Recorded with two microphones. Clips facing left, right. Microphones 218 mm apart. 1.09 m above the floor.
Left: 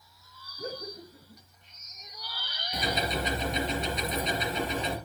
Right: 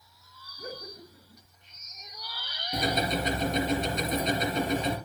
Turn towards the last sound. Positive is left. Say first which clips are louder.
# right 3 dB
turn(degrees=-45)  # may be behind; listen again after turning